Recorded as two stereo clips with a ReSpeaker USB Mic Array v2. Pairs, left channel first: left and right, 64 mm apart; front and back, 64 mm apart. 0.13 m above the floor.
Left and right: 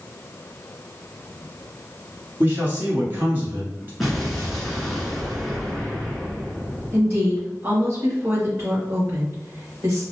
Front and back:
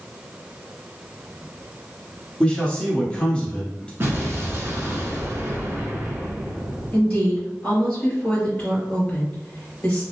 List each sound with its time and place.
2.4 s a man speaking: 65° right, 1.2 m
4.0 s an explosion: 175° right, 1.0 m
6.9 s a woman speaking: 55° right, 1.9 m